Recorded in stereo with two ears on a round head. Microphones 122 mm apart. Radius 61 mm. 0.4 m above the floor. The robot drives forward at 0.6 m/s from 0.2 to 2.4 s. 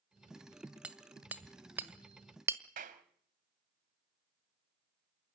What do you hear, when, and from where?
0.8 s hammering: 10° right (ahead or behind), 1.7 m; by 2.6 s 20° right (ahead or behind), 1.0 m
2.8 s a clap: 65° right (ahead or behind), 1.8 m